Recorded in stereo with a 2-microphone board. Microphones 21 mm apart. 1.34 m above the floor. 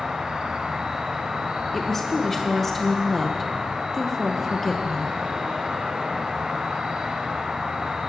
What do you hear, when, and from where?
0.0 s an insect: 50° right (ahead or behind), 1.6 m
1.7 s a woman speaking: 15° left (ahead or behind), 0.8 m